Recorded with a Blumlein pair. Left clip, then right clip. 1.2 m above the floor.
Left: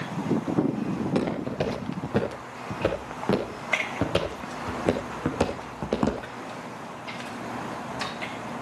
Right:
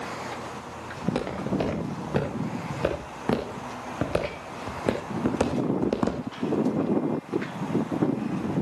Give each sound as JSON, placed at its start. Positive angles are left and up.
{"t": 1.0, "sound": "footsteps", "azimuth_deg": -5, "distance_m": 7.0}